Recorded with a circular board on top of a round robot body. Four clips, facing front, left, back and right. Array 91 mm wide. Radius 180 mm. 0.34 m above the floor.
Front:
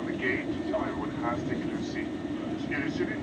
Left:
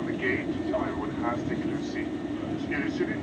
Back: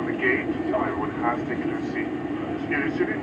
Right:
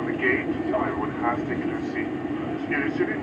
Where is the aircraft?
140° right.